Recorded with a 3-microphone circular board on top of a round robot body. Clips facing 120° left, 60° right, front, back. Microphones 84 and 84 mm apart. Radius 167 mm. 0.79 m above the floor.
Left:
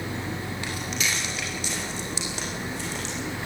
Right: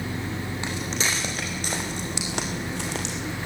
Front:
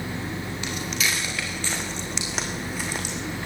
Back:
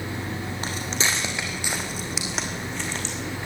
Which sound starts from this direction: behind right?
Footsteps, at 0.6 s.